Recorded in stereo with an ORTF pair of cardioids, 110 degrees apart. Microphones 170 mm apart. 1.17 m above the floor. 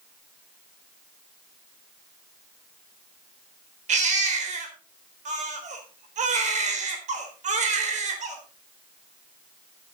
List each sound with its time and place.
3.9 s a baby crying: 45° right, 4 m